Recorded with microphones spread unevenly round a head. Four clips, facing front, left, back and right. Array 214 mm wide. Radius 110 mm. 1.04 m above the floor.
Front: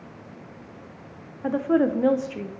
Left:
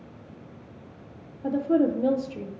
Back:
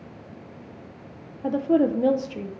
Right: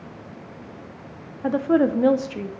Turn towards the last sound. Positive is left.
turn(degrees=-125)